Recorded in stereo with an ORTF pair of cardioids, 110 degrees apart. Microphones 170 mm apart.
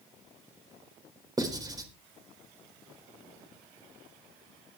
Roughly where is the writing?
Ahead right.